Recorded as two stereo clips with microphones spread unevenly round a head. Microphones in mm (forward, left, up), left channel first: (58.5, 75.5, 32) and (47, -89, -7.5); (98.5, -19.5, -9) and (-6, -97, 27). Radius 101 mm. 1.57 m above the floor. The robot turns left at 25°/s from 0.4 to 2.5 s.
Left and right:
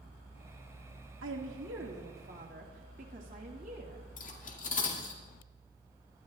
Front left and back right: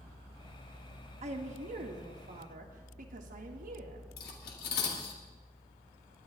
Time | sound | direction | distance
1.2 | a woman speaking | 120° right | 2 m
4.2 | cutlery clinking | 55° left | 2.5 m